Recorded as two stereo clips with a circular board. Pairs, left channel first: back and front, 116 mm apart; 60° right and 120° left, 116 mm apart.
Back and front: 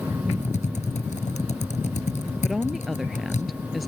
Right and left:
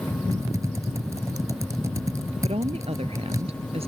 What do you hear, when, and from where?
0.3 s typing on a keyboard: straight behind
2.4 s a woman speaking: 90° left